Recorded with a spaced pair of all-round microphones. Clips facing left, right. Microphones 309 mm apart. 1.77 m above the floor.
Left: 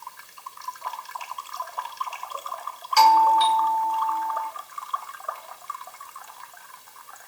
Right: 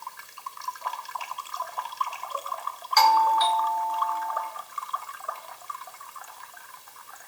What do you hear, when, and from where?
3.0 s a doorbell: 40° left (ahead or behind), 0.7 m